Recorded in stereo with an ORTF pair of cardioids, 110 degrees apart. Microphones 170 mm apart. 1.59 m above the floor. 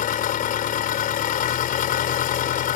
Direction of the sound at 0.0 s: 55° left.